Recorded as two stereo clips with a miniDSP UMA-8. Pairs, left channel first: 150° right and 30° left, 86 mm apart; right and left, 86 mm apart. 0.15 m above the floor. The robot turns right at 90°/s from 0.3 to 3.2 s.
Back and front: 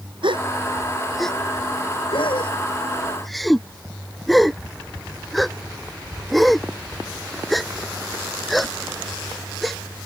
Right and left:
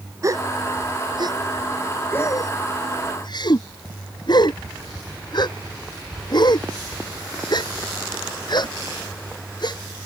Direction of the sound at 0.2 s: 40° left.